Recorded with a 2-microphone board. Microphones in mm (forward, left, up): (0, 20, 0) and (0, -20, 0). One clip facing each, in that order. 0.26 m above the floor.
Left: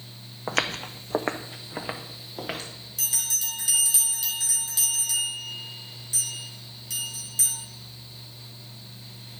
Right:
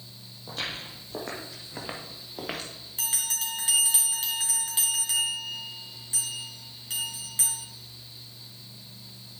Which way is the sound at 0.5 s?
70° left (ahead or behind).